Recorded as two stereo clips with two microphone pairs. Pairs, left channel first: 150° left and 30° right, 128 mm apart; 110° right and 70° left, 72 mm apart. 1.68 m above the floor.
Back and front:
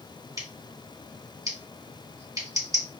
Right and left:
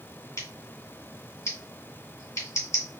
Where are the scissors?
80° right, 2 m.